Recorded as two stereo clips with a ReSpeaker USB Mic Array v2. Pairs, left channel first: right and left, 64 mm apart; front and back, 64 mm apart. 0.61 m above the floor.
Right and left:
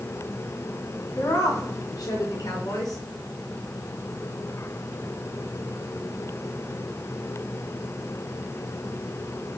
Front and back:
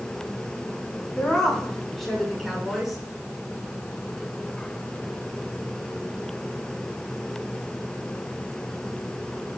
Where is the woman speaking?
80° right, 5 m; by 3.0 s 95° right, 6 m.